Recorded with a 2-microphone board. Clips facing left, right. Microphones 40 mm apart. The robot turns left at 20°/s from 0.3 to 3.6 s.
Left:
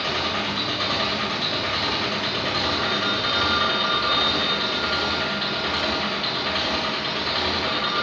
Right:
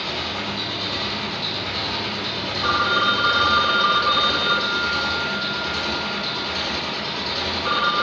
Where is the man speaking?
No man speaking in this recording.